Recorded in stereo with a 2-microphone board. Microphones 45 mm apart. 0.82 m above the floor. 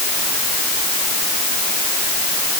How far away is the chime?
No chime in this recording.